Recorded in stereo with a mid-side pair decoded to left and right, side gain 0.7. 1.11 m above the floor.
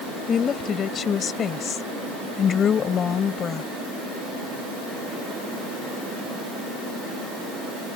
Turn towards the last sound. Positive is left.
turn(degrees=35)